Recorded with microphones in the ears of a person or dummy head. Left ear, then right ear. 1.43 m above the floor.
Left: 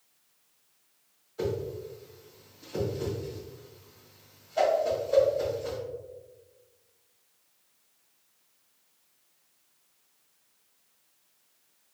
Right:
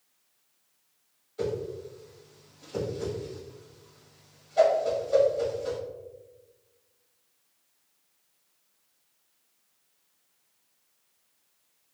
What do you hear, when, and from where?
1.4 s a whoosh: 5° right (ahead or behind), 1.6 m